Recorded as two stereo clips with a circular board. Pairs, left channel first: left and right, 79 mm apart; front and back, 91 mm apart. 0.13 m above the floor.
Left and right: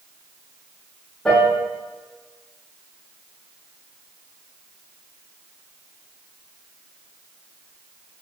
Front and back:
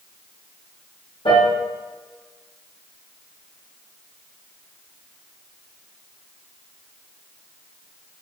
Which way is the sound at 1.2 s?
10° left.